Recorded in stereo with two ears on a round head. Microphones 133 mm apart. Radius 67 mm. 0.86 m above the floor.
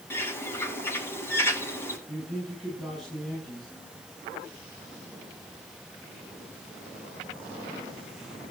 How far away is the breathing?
I don't hear breathing.